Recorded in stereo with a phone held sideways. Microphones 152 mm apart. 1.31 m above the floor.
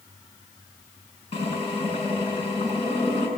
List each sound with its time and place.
1.3 s a drill: 35° left (ahead or behind), 8 m